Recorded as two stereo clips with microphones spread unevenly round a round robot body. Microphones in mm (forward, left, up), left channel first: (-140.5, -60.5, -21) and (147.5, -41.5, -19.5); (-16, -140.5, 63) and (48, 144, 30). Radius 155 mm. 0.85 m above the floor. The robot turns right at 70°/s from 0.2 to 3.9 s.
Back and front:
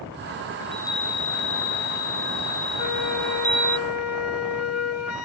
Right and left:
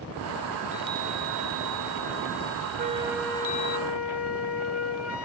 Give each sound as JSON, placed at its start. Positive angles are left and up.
{"t": 0.6, "sound": "a chime", "azimuth_deg": 85}
{"t": 2.8, "sound": "a flute", "azimuth_deg": 140}